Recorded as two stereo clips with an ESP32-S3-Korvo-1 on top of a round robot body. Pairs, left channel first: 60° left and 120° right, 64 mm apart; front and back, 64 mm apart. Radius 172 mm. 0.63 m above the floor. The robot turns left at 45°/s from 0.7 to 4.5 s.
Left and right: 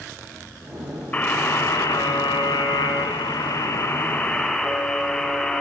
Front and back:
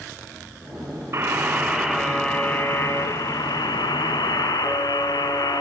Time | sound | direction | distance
1.1 | a buzzer | 125° left | 2 m